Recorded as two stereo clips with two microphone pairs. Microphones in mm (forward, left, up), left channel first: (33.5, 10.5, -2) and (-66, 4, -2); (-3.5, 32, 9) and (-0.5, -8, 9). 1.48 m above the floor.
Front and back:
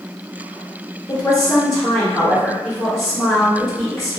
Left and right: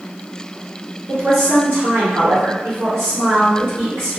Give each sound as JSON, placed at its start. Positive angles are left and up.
{"t": 1.1, "sound": "a woman speaking", "azimuth_deg": -65, "distance_m": 1.1}